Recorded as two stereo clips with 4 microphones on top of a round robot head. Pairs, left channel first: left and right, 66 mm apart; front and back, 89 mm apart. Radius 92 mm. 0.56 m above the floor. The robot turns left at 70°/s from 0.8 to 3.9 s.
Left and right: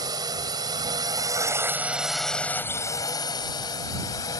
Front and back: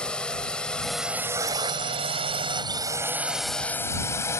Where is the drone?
80° right; by 4.4 s 55° left.